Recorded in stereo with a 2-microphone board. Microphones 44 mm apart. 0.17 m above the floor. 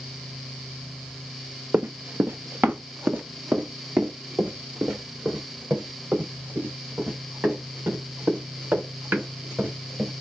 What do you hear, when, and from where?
1.7 s running footsteps: 40° right (ahead or behind), 0.6 m